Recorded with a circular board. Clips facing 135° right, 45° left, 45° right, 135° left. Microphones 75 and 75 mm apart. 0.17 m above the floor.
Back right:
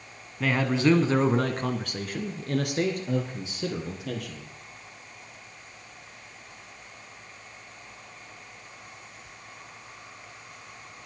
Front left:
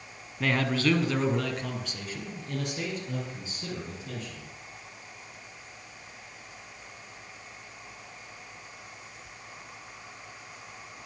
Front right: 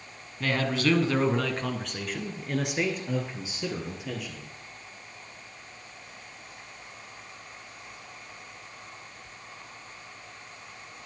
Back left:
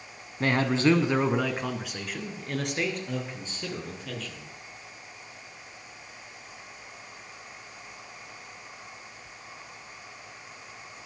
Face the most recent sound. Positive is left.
turn(degrees=-125)